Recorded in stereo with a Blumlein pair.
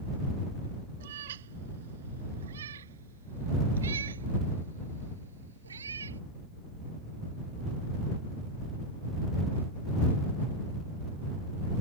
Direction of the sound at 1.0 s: 60° right.